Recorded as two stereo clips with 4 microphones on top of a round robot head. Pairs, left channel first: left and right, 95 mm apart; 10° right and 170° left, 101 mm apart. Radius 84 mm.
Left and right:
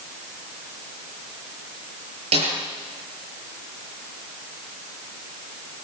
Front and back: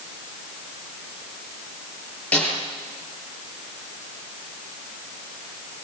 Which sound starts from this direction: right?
A snare drum, at 2.3 s.